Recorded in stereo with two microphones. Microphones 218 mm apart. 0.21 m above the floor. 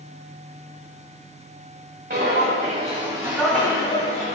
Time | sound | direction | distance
2.1 | footsteps | 50° right (ahead or behind) | 0.9 m